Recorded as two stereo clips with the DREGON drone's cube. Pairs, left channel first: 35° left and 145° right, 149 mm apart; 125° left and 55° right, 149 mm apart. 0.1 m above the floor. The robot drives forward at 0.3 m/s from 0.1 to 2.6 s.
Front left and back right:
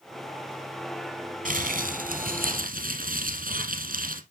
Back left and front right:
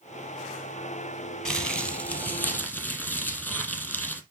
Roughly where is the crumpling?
Behind right.